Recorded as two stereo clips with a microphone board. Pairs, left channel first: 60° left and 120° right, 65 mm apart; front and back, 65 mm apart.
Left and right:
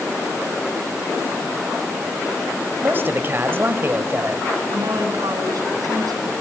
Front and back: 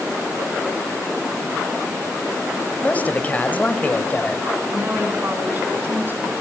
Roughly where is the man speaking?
Ahead right.